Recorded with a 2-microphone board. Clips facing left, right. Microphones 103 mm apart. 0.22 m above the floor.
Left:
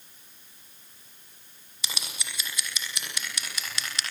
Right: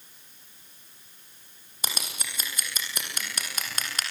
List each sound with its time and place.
1.8 s scissors: 45° right (ahead or behind), 6.5 m